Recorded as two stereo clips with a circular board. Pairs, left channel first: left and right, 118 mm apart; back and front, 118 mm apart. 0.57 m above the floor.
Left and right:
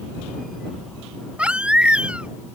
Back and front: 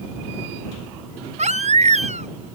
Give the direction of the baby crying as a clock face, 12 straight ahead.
12 o'clock.